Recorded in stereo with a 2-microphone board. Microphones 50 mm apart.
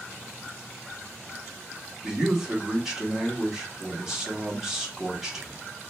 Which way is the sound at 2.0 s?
10° right (ahead or behind).